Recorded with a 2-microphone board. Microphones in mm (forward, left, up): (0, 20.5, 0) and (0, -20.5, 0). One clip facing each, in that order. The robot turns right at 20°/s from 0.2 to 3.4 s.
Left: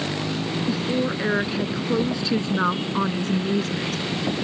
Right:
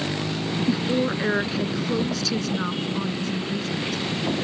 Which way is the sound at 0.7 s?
10° right.